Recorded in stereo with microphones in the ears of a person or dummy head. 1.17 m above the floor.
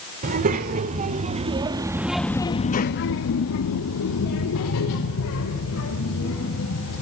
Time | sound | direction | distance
0.2 | a child speaking | 45° right (ahead or behind) | 2 m